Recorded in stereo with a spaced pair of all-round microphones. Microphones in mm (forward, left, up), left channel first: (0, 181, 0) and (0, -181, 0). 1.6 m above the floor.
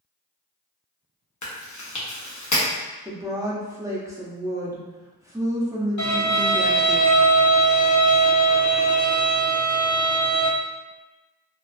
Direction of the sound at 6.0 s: 55° left (ahead or behind).